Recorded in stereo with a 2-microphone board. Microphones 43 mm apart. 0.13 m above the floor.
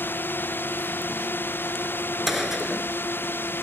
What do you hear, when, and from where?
0.0 s a drone: 50° left (ahead or behind); by 3.6 s 55° left (ahead or behind)
2.3 s a gunshot: 5° right (ahead or behind)